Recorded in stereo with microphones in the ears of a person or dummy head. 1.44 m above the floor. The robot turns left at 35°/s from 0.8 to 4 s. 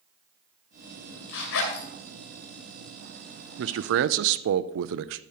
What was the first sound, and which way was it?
A zipper, 65° left (ahead or behind).